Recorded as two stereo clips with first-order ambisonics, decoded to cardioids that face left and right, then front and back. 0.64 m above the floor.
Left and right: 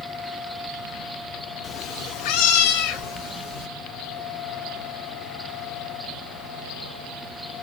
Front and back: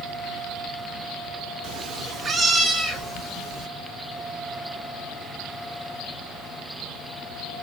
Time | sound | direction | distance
1.6 | a cat meowing | 155° left | 0.5 m